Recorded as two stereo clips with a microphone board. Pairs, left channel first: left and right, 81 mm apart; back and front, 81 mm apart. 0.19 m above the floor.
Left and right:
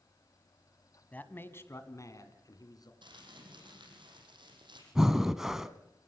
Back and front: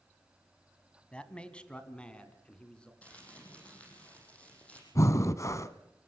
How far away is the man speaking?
About 1.6 m.